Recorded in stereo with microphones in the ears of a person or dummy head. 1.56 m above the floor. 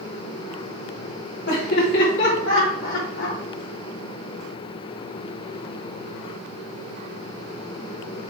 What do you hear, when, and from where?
1.5 s laughter: 65° left (ahead or behind), 4 m; by 3.4 s 80° left, 4 m